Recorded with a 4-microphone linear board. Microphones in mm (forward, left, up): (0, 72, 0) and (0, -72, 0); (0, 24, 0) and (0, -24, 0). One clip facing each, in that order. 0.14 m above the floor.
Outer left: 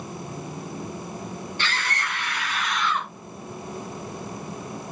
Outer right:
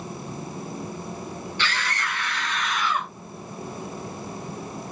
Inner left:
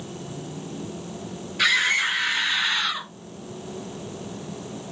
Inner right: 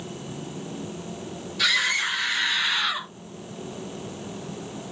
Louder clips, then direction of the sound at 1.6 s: Outer right 1 dB, inner left 3 dB; 30° left (ahead or behind).